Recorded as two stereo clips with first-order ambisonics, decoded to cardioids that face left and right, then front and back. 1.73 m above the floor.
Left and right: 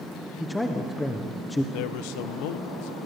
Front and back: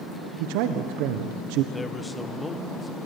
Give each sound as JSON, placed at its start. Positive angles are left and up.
{"t": 0.4, "sound": "a man speaking", "azimuth_deg": 170, "distance_m": 1.3}
{"t": 1.7, "sound": "a man speaking", "azimuth_deg": 85, "distance_m": 1.4}